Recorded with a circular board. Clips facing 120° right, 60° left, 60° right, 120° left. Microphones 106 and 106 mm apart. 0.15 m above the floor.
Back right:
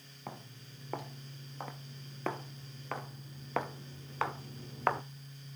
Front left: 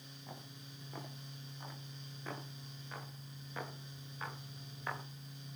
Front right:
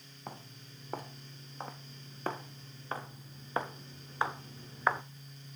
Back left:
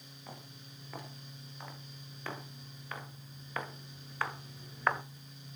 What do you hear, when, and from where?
0.3 s footsteps: 105° right, 7 m; by 5.0 s 145° right, 1.6 m